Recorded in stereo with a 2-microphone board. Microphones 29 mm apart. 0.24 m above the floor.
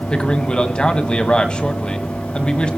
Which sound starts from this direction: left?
A man speaking, at 0.1 s.